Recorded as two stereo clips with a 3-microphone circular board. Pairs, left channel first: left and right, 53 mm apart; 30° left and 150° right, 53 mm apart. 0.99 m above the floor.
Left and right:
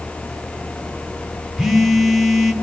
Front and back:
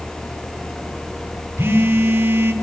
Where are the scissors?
I don't hear scissors.